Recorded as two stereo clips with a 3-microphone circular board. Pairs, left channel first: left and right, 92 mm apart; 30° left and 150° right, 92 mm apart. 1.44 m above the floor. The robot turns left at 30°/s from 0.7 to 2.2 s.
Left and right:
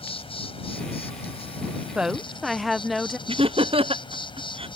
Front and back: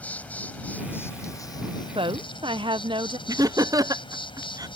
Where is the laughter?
100° right.